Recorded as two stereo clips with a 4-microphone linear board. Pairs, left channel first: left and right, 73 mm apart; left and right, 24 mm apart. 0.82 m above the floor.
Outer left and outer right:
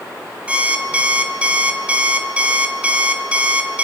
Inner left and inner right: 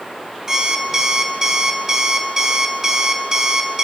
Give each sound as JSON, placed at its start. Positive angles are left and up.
{"t": 0.5, "sound": "an alarm clock", "side_deg": -20, "distance_m": 3.5}